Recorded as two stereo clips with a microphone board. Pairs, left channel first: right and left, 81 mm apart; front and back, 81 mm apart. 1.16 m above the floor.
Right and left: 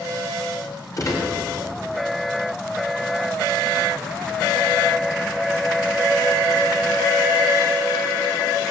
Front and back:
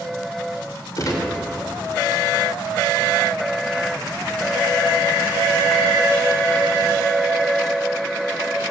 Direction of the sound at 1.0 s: 45° right.